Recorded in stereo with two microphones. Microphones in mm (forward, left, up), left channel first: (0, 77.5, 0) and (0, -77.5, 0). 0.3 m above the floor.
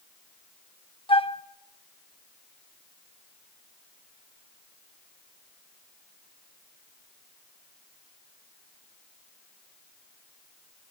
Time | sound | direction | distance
1.1 | a flute | 40° left (ahead or behind) | 0.6 m